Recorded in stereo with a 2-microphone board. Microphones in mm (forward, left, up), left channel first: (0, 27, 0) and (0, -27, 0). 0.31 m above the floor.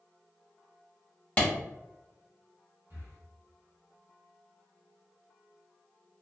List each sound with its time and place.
1.4 s a clap: 25° left (ahead or behind), 1.3 m
2.9 s breathing: 65° right (ahead or behind), 1.9 m